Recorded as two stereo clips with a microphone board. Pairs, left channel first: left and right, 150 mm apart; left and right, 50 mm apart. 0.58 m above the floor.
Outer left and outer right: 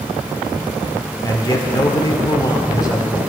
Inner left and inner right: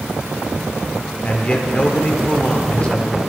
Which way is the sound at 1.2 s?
25° left (ahead or behind).